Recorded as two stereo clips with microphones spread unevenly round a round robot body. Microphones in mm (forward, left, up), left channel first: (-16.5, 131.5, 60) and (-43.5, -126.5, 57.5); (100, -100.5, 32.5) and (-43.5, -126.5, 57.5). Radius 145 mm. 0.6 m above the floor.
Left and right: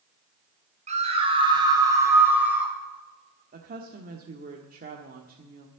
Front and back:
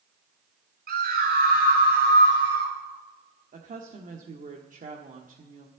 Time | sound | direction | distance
0.9 | a scream | 160° right | 4 m
3.5 | a woman speaking | 145° right | 1.6 m